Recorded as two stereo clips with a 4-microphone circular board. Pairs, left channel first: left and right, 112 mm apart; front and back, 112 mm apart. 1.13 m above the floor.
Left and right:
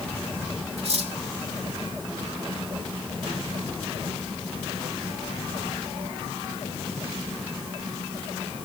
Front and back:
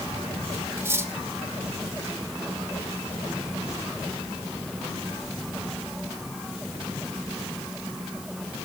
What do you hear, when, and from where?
0.8 s cutlery clinking: 115° right, 2 m